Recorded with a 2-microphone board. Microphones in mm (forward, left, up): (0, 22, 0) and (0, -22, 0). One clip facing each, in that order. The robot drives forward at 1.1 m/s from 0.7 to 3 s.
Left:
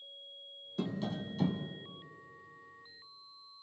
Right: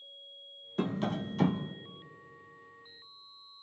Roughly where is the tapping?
Right.